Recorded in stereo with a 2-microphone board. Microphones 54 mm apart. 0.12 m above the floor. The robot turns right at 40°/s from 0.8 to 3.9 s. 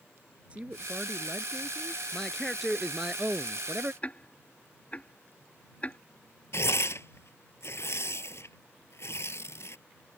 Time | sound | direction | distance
0.5 | a woman speaking | 35° right | ?
2.1 | a man speaking | 160° left | ?
4.0 | ticking | 25° left (ahead or behind) | ?
6.5 | tearing paper | 60° left (ahead or behind) | ?